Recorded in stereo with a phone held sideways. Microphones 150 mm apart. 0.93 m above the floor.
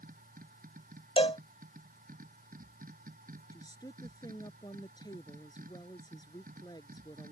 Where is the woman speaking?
25° left (ahead or behind).